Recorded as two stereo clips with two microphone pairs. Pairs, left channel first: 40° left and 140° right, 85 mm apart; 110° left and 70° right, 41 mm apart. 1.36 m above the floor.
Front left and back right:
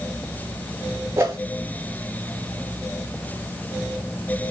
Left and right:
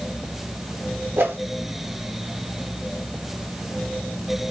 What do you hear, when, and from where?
1.2 s a whoosh: 85° right, 2.5 m